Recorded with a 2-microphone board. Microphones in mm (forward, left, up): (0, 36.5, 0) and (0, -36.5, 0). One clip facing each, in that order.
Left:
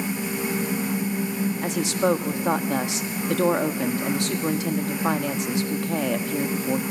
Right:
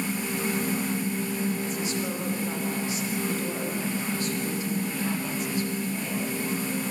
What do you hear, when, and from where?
1.6 s a woman speaking: 80° left, 1.6 m